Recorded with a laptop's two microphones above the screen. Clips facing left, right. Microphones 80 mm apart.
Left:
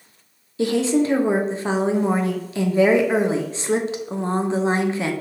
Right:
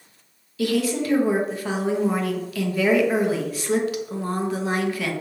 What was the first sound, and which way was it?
A woman speaking, 25° left (ahead or behind).